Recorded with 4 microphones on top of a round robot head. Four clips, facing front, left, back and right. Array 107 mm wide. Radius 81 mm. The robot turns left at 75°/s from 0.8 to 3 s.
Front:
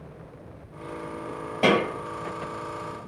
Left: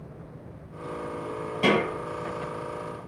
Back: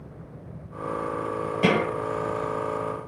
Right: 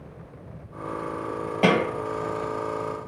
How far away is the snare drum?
About 1.1 m.